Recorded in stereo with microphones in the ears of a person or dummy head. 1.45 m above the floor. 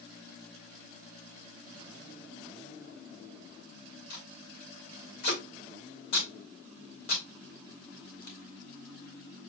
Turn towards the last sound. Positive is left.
turn(degrees=60)  # may be behind; listen again after turning